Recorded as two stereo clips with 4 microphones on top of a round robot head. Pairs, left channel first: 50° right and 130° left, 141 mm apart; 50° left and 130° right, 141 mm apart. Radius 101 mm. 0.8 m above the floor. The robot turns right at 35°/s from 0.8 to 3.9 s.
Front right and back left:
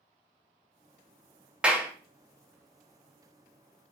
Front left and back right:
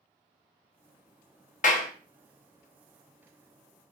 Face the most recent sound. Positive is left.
turn(degrees=125)